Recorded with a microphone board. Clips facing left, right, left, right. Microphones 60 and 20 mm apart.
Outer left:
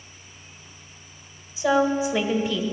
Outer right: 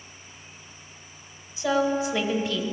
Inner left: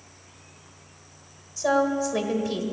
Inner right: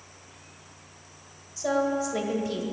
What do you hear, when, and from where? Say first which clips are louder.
1.6 s a woman speaking: outer left 3 dB, inner left 3 dB; 10° left (ahead or behind), 1.7 m